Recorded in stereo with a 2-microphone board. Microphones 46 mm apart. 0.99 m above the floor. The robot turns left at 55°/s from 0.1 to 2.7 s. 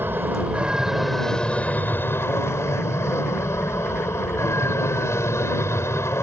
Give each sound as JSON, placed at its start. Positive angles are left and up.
{"t": 0.0, "sound": "an aircraft", "azimuth_deg": -130}